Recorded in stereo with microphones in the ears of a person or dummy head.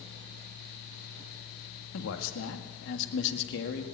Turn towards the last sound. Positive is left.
turn(degrees=55)  # may be behind; listen again after turning